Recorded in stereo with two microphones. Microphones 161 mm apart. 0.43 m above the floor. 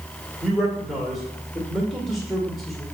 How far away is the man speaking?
About 1.7 m.